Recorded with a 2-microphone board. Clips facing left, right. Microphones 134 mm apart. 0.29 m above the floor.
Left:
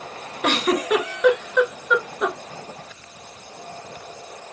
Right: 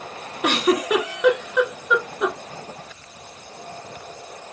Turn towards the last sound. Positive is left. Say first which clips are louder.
# right 1 dB
turn(degrees=-10)  # may be behind; listen again after turning